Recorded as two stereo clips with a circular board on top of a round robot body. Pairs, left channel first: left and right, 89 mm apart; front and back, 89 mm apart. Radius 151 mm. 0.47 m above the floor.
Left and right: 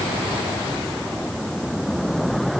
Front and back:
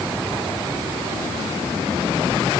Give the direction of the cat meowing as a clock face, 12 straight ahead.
No cat meowing in this recording.